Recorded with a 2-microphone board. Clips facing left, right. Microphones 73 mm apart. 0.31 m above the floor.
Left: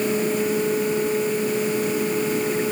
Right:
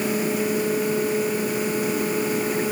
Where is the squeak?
I don't hear a squeak.